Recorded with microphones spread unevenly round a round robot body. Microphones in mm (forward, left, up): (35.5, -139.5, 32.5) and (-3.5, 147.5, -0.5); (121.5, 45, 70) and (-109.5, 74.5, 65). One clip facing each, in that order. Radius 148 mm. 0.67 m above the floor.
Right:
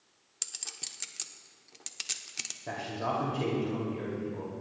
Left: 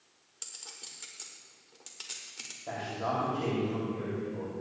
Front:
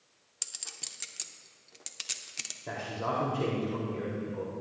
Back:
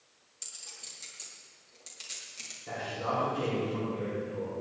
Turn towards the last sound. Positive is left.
turn(degrees=-40)